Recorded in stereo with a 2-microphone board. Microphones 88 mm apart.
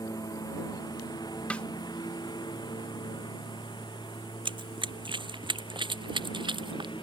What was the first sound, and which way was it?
A lawn mower, 50° left (ahead or behind).